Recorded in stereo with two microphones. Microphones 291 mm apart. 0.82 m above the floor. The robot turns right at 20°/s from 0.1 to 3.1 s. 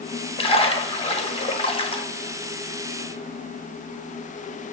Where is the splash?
20° left (ahead or behind), 0.8 m.